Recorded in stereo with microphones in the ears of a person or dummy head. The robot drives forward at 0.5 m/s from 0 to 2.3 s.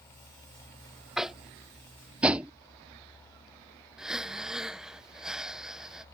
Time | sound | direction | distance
1.2 | tapping | 5° right (ahead or behind) | ?
4.0 | breathing | 5° right (ahead or behind) | ?